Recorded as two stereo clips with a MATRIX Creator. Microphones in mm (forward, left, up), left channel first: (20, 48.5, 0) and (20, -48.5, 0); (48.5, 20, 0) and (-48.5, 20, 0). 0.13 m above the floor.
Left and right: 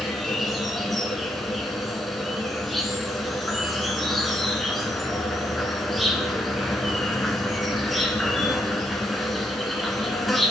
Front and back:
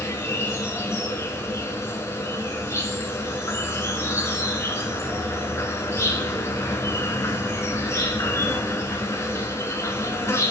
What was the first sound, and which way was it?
An insect, straight ahead.